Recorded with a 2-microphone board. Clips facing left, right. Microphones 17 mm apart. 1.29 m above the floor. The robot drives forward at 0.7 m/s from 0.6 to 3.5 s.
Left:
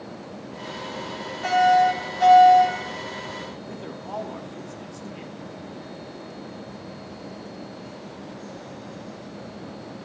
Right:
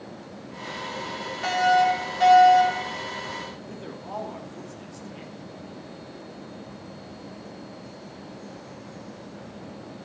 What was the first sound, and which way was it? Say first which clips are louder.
A fire alarm: left 3 dB; 15° right (ahead or behind).